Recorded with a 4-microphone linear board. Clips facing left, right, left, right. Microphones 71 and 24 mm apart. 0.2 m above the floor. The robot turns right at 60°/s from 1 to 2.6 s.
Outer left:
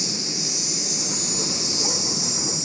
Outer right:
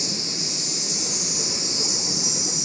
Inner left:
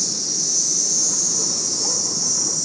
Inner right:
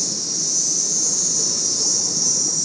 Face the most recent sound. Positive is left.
turn(degrees=-95)